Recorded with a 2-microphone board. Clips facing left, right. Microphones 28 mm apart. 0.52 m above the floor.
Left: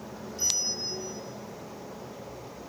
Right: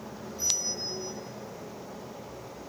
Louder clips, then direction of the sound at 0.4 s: Left 1 dB; 80° left.